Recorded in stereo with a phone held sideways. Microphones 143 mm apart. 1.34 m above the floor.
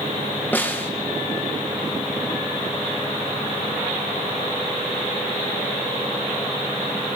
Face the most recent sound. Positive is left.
turn(degrees=15)  # may be behind; listen again after turning